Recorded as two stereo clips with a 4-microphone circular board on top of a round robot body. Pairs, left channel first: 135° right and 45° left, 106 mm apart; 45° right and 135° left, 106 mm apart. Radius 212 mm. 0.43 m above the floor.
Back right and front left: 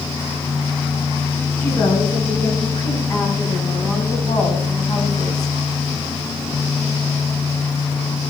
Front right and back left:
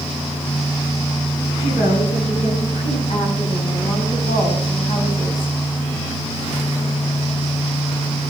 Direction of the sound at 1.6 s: 65° right.